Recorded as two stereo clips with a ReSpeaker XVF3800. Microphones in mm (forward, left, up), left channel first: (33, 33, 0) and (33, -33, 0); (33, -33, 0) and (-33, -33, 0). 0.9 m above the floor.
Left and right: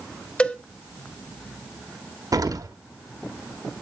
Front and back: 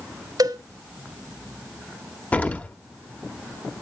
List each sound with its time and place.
0.4 s a cowbell: 160° left, 1.1 m
2.3 s an explosion: 65° right, 1.3 m